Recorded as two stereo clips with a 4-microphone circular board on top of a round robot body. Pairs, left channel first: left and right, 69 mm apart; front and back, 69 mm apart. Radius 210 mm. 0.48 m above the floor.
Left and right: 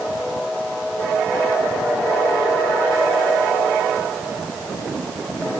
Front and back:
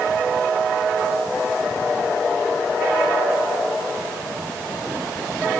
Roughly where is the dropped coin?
No dropped coin in this recording.